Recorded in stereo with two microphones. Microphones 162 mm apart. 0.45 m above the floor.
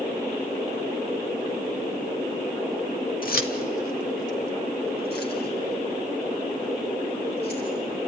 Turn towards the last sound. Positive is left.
turn(degrees=85)